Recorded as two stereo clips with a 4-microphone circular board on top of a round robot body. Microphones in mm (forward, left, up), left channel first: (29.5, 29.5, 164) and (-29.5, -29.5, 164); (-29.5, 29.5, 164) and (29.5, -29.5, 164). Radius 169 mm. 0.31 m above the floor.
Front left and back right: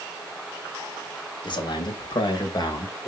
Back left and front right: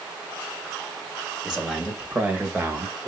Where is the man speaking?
40° left, 2.5 m; by 3.1 s 5° left, 2.5 m.